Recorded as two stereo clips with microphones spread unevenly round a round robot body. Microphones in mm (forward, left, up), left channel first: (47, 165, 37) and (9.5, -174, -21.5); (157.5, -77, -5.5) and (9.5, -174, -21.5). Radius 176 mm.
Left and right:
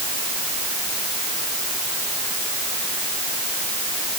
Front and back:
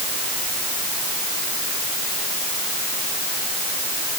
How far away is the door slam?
No door slam in this recording.